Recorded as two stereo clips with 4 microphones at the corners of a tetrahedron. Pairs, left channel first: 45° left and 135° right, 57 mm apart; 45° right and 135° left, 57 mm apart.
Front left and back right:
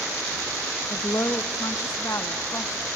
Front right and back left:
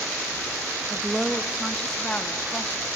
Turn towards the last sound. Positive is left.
turn(degrees=15)